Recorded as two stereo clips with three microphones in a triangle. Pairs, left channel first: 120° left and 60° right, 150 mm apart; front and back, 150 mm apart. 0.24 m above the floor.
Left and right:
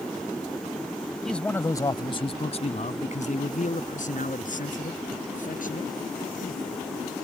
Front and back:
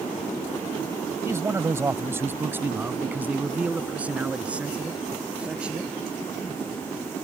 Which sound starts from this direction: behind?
A man speaking, at 1.2 s.